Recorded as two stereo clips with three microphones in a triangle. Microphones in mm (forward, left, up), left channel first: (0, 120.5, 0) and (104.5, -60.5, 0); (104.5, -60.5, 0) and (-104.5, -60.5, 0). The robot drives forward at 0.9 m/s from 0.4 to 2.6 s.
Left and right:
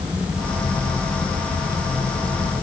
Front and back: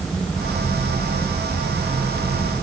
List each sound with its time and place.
Only background noise.